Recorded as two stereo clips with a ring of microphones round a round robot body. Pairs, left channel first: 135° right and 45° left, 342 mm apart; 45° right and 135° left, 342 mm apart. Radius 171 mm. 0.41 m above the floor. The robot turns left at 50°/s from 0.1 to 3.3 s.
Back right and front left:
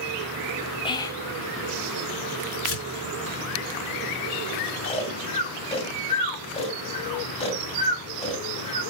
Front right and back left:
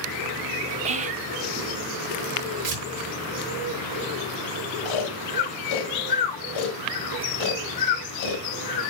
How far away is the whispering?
About 0.8 m.